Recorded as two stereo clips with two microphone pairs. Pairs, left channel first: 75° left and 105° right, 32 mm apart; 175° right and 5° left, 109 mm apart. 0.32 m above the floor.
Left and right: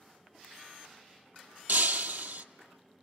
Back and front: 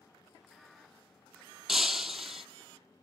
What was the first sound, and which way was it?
Breaking glass, 80° right.